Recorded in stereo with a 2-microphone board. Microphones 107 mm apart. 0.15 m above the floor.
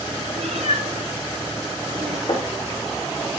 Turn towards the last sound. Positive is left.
turn(degrees=55)  # may be behind; listen again after turning